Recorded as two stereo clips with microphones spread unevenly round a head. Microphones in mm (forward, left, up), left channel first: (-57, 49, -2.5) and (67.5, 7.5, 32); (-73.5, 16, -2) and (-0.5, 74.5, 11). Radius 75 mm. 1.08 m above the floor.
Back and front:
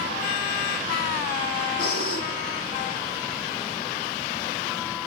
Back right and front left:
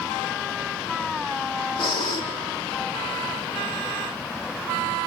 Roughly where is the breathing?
Behind.